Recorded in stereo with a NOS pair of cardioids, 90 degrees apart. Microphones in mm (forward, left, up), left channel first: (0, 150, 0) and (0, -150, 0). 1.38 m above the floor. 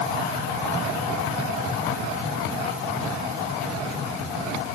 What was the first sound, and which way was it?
Only background noise.